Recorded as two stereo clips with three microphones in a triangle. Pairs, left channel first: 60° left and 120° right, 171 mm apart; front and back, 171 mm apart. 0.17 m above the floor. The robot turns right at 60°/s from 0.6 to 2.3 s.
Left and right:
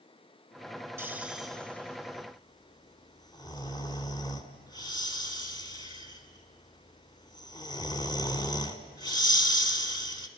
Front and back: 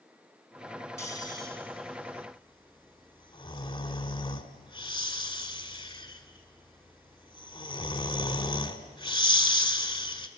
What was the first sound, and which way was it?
Snoring, 60° right.